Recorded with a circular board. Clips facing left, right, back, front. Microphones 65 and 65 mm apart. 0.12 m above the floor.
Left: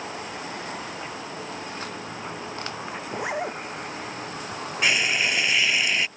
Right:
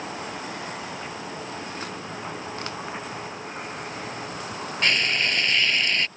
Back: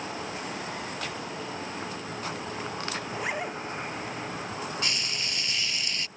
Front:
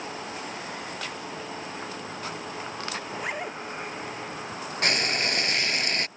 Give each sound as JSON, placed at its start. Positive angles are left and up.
{"t": 3.1, "sound": "a zipper", "azimuth_deg": 90}
{"t": 4.8, "sound": "frying", "azimuth_deg": 10}